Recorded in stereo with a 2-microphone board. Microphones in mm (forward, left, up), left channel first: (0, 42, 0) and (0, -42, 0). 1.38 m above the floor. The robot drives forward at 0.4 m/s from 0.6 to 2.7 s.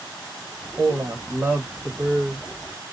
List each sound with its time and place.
0.8 s a woman speaking: 35° right (ahead or behind), 0.8 m; by 2.4 s 20° right (ahead or behind), 1.4 m